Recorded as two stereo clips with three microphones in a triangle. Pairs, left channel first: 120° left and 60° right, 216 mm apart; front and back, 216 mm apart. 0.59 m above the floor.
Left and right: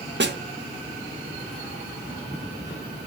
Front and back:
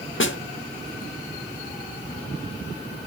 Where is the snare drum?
25° right, 0.9 m.